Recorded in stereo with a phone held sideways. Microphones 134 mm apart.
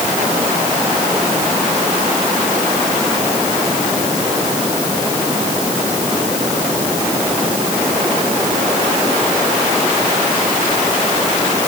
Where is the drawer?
I don't hear a drawer.